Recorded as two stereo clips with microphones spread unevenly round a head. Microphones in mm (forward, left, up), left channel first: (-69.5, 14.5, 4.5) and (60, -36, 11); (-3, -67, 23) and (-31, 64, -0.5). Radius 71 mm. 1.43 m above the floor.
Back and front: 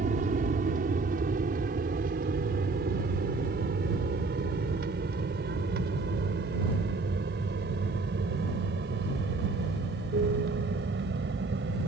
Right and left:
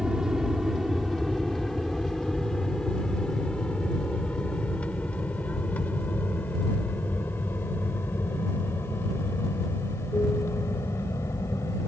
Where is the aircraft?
15° left; by 11.9 s 5° right.